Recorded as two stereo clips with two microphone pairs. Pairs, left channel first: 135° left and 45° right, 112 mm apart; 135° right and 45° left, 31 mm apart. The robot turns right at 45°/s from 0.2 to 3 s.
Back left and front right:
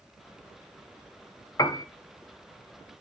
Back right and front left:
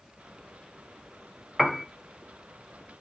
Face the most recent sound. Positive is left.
turn(degrees=-165)